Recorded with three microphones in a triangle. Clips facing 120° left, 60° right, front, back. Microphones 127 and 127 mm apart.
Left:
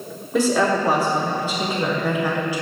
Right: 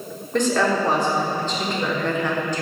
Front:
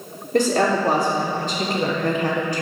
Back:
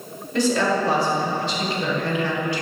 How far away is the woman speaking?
About 2.5 m.